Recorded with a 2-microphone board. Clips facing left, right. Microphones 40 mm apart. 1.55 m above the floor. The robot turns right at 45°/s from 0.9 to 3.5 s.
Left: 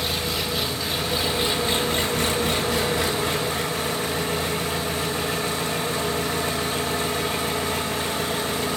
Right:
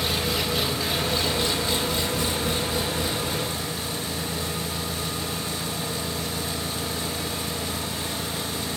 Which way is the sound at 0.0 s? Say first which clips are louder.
Even; straight ahead.